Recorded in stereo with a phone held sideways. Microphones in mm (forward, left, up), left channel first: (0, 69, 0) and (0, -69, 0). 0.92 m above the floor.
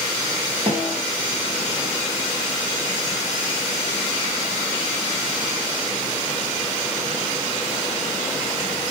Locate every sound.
0.7 s a snare drum: 50° right (ahead or behind), 1.8 m